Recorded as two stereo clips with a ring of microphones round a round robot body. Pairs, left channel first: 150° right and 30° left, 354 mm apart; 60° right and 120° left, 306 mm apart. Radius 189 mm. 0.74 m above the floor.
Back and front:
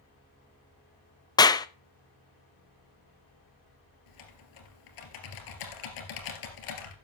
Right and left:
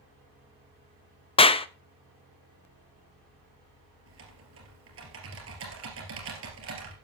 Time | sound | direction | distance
1.4 | a clap | 90° right | 0.6 m
4.1 | typing on a keyboard | straight behind | 2.5 m